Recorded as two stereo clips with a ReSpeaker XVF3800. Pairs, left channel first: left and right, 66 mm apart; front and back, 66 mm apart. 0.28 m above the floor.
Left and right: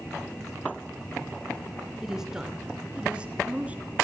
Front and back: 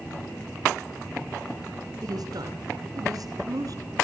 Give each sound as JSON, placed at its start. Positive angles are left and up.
{"t": 2.0, "sound": "a woman speaking", "azimuth_deg": -170, "distance_m": 3.5}